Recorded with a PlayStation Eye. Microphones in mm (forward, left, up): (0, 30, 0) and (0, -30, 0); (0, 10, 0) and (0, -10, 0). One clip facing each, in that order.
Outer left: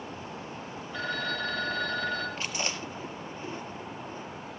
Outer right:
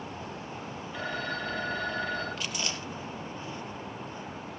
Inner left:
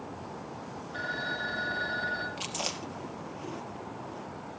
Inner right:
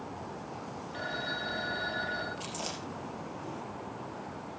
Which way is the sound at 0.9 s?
15° right (ahead or behind).